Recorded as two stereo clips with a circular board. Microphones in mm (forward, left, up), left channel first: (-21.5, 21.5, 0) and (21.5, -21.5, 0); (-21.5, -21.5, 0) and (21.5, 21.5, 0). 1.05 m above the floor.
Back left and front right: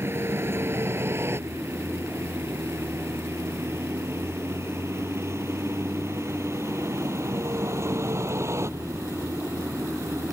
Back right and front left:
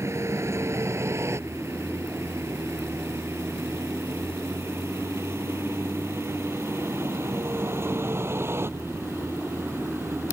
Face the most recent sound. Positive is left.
turn(degrees=-5)